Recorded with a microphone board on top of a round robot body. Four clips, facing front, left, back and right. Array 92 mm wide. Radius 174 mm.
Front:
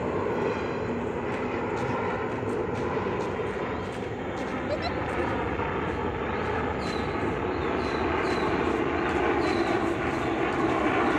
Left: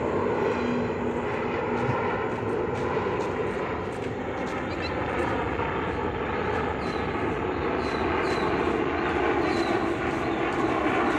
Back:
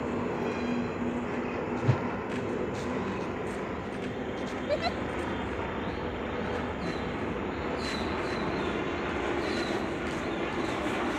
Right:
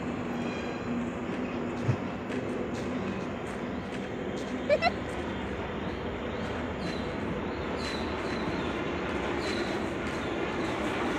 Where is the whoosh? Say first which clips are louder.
Left 6 dB, front 1 dB; 170° right.